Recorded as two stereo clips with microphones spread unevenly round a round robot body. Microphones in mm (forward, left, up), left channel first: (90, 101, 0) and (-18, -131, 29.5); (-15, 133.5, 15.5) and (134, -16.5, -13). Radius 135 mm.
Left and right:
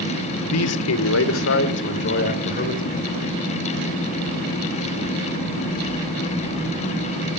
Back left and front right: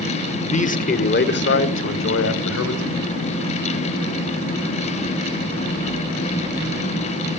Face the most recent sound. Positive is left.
turn(degrees=125)